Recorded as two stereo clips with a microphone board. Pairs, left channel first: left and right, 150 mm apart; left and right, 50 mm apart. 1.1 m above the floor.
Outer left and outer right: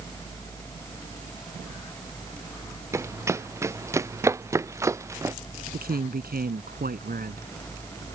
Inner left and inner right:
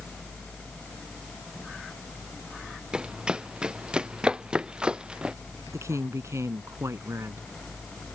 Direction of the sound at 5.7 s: 85° right.